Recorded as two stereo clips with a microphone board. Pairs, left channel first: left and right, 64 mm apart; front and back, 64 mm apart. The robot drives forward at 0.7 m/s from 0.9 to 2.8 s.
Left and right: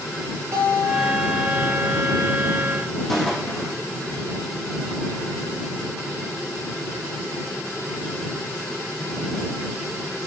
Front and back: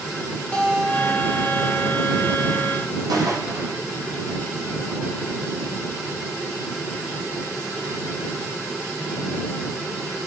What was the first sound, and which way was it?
A guitar, 75° right.